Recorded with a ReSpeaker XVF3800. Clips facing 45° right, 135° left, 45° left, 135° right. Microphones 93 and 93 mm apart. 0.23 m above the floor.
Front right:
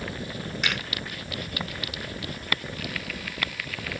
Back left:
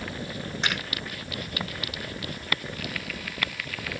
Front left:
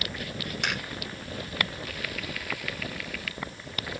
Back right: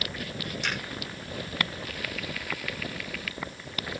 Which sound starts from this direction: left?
A finger snap, at 0.6 s.